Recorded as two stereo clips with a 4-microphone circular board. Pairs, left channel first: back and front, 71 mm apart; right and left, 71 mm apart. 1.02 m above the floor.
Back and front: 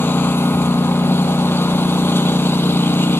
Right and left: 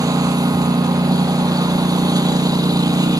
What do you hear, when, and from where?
0.0 s a lawn mower: 120° left